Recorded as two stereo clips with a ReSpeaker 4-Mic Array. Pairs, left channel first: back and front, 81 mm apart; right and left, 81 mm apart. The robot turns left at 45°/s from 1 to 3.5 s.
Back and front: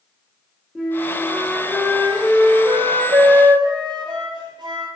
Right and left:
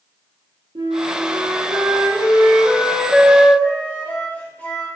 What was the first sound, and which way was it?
A flute, 90° left.